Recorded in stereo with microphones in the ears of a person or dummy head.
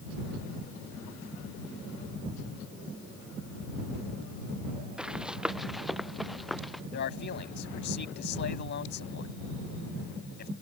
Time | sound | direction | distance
5.0 | running footsteps | 5° right (ahead or behind) | ?
6.9 | a man speaking | 50° left (ahead or behind) | ?